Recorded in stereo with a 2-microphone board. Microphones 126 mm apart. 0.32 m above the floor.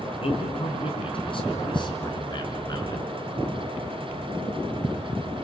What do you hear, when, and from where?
0.2 s a man speaking: 50° left (ahead or behind), 4.5 m; by 3.1 s 30° left (ahead or behind), 5 m